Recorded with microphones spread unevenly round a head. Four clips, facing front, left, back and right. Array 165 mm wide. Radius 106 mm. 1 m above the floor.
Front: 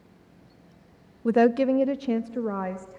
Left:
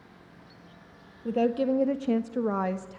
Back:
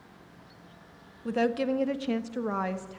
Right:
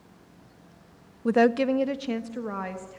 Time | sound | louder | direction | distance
1.2 | a woman speaking | right 4 dB, front 7 dB | 15° right | 0.6 m